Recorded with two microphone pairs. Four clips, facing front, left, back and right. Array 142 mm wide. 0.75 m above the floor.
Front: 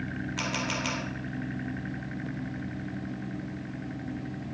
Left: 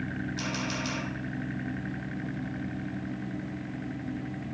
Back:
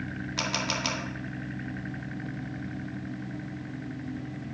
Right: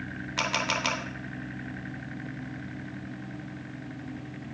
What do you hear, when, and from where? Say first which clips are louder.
0.4 s a camera shutter: right 8 dB, back 1 dB; 105° right, 2 m